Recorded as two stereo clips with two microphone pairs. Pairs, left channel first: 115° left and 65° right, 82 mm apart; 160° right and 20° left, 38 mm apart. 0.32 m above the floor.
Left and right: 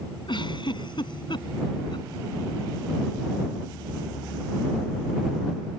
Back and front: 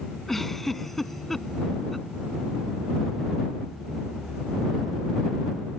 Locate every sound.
0.3 s a giggle: 115° left